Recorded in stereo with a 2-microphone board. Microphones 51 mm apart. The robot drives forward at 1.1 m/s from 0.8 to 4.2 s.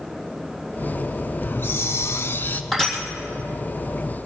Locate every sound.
1.4 s a hiss: 40° left (ahead or behind), 0.9 m
2.7 s crushing: centre (ahead or behind), 3.5 m